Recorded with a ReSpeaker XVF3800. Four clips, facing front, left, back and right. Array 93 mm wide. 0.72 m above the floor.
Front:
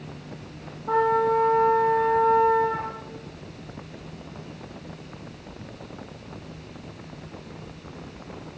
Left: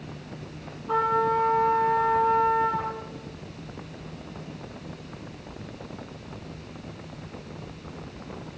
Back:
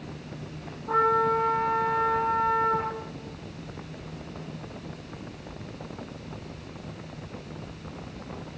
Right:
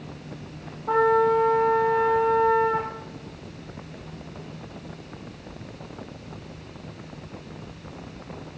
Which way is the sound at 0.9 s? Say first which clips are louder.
Right 4 dB, front 2 dB; 70° right.